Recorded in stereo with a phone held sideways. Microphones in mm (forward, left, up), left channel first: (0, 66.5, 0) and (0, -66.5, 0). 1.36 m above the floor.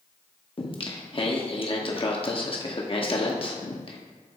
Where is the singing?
40° left (ahead or behind), 1.0 m.